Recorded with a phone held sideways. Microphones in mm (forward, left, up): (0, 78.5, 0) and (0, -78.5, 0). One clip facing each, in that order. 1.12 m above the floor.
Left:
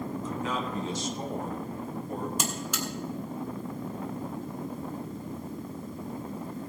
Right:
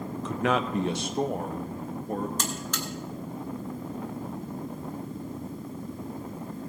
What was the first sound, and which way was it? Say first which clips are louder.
A man speaking: right 9 dB; 75° right (ahead or behind).